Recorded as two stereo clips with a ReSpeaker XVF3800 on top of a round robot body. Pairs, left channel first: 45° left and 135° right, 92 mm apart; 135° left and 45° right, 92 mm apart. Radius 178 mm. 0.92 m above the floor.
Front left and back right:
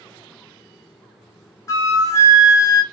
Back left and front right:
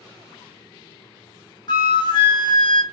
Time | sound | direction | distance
1.7 | a flute | 100° left | 1.5 m